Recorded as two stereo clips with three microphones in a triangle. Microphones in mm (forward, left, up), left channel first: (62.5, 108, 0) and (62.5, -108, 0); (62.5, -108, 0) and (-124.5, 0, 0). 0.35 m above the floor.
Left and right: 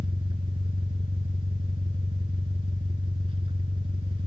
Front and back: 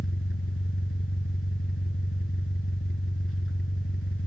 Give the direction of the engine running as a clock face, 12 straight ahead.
1 o'clock.